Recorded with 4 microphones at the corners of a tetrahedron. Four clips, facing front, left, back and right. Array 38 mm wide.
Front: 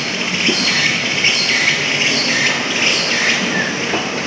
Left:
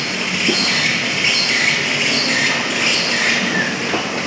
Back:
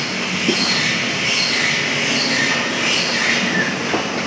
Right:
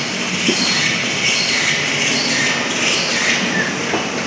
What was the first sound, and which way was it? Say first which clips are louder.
An insect: even, front 3 dB; 5° left.